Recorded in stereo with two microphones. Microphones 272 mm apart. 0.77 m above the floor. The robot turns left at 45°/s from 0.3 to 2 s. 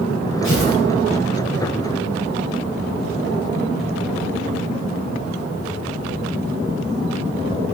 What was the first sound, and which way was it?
Tearing paper, 45° left (ahead or behind).